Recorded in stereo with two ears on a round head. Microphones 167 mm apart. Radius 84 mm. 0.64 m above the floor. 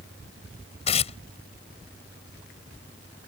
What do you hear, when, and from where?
0.9 s tearing paper: 35° left (ahead or behind)